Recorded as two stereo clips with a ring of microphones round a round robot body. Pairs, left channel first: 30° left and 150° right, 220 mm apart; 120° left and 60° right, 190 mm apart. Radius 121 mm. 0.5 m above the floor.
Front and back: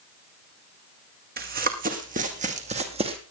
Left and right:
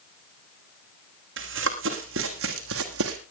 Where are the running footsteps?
100° right, 2.5 m; by 3.2 s 85° right, 1.8 m.